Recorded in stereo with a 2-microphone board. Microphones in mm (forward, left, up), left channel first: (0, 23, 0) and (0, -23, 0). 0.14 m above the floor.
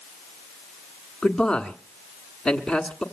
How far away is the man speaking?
About 1.2 m.